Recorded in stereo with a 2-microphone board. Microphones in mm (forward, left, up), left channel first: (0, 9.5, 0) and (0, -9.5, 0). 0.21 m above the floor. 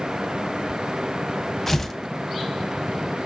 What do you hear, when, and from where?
1.7 s tearing paper: 10° left (ahead or behind), 0.6 m